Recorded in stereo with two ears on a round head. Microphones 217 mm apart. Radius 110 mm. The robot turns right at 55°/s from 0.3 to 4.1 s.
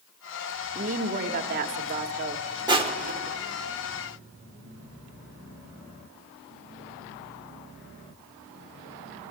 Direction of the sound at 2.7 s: 20° right (ahead or behind).